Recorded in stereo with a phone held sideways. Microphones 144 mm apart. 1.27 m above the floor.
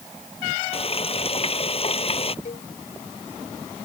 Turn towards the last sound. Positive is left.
turn(degrees=60)  # may be behind; listen again after turning